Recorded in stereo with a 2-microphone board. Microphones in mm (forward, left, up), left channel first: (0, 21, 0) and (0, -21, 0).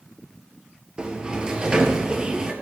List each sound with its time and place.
1.0 s a sliding door: 20° right (ahead or behind), 2.0 m